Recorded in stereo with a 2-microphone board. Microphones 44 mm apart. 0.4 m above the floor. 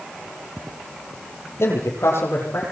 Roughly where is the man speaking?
Left.